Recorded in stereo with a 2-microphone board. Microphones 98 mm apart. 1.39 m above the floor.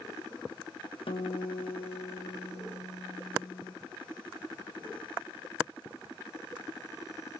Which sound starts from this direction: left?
A guitar, at 1.1 s.